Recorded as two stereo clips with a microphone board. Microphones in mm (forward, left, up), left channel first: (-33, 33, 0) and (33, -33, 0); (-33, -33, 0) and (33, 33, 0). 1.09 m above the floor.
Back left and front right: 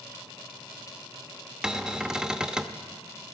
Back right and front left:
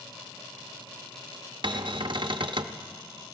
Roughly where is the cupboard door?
Ahead left.